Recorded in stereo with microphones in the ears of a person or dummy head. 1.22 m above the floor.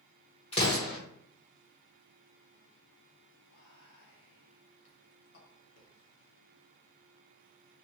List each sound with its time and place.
0.5 s an explosion: 35° left (ahead or behind), 1.1 m
3.5 s whispering: 75° left (ahead or behind), 1.4 m